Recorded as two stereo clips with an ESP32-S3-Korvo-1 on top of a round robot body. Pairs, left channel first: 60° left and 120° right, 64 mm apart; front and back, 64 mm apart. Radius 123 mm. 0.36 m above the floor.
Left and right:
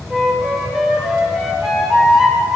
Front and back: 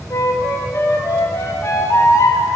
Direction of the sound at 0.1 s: 35° right.